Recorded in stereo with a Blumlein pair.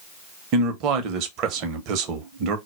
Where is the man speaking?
40° right, 0.6 m.